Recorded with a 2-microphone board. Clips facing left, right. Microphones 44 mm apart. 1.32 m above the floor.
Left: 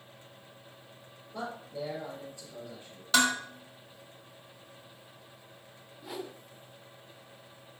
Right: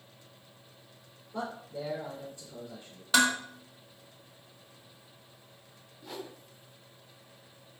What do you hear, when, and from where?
1.3 s a man speaking: 40° right (ahead or behind), 4.5 m
3.1 s dishes clattering: 10° right (ahead or behind), 1.7 m
6.0 s a whoosh: 10° left (ahead or behind), 0.6 m